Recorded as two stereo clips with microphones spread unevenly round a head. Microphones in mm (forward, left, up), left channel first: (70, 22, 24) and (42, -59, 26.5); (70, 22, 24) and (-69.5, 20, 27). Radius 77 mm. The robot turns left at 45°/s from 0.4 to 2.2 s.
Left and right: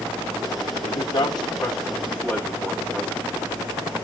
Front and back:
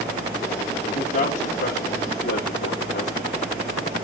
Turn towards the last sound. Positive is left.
turn(degrees=-10)